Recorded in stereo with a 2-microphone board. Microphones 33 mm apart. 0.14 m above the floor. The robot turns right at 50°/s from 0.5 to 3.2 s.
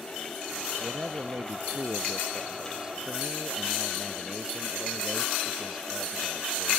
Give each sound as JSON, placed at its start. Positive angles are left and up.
{"t": 0.8, "sound": "a man speaking", "azimuth_deg": -125}